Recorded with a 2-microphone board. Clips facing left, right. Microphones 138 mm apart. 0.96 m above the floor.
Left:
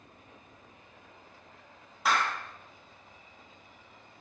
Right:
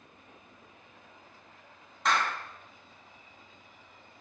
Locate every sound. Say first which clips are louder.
2.0 s a clap: even; 5° left (ahead or behind), 1.2 m